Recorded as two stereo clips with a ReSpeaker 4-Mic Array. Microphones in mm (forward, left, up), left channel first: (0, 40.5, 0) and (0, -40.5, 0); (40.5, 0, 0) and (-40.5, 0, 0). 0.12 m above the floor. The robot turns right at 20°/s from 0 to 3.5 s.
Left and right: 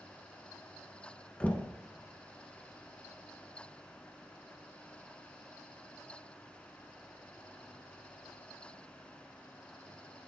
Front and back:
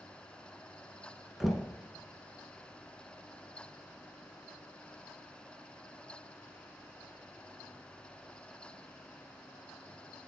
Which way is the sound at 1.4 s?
100° left.